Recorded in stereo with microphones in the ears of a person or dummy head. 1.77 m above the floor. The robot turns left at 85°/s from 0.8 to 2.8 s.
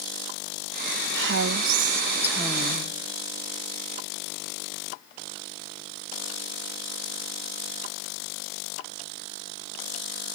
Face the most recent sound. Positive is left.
turn(degrees=150)